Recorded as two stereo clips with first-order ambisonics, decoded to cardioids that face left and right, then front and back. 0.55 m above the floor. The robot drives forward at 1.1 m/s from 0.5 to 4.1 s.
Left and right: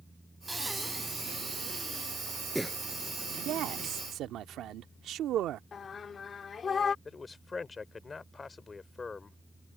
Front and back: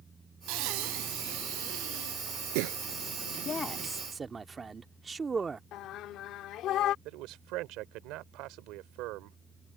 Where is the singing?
25° left.